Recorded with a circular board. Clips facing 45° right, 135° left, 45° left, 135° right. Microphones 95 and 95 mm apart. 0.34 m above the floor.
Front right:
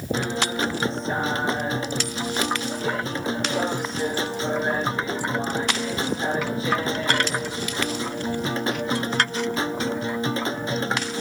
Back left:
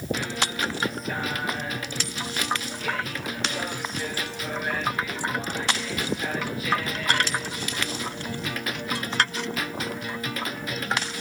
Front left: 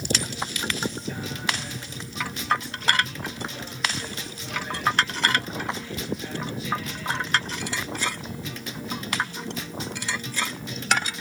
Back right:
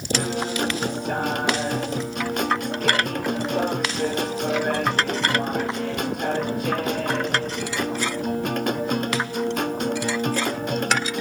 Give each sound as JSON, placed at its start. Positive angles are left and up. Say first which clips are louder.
{"t": 0.1, "sound": "a guitar", "louder": "front right 5 dB, back right 11 dB", "azimuth_deg": -105}